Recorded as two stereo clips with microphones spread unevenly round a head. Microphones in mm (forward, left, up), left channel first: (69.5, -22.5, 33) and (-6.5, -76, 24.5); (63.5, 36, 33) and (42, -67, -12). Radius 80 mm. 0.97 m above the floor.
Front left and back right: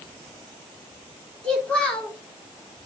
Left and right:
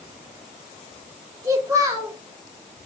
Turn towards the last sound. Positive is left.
turn(degrees=-45)